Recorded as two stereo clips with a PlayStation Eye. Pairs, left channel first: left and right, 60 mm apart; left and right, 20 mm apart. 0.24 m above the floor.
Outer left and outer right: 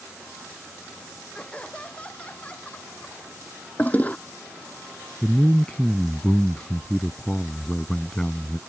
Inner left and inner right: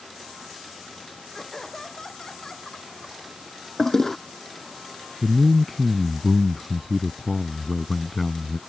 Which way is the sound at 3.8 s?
25° left (ahead or behind).